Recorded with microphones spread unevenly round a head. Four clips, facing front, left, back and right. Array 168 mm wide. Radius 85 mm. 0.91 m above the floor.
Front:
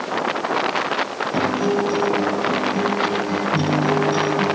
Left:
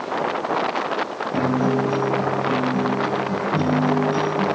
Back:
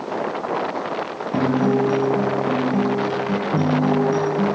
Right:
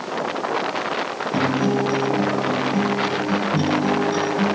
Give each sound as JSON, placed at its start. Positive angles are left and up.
{"t": 1.3, "sound": "a guitar", "azimuth_deg": -160, "distance_m": 8.0}